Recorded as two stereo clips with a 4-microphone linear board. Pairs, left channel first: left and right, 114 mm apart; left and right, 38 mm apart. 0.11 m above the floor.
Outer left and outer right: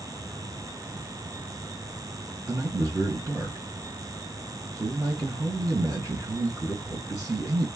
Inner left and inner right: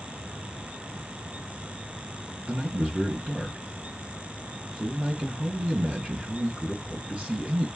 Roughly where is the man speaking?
Right.